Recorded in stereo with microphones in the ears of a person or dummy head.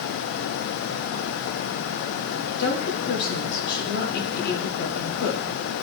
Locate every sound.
2.6 s a woman speaking: 60° left (ahead or behind), 2 m